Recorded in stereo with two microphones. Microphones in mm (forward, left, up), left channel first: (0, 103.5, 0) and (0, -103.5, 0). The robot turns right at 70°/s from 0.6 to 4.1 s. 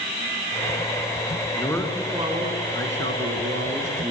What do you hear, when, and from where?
1.5 s a man speaking: 155° left, 4.5 m; by 4.1 s 25° right, 4.5 m